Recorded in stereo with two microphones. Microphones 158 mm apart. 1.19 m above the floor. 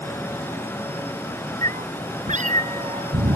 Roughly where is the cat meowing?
Right.